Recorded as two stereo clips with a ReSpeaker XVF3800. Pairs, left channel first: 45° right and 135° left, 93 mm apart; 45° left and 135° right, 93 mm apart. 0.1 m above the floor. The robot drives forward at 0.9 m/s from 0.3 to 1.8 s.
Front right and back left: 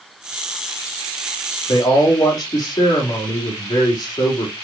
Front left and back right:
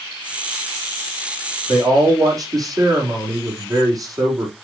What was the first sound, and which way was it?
A man speaking, 85° right.